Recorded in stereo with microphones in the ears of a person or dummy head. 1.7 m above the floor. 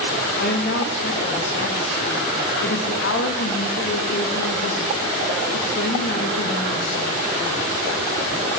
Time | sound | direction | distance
0.4 | a woman speaking | 55° left (ahead or behind) | 3 m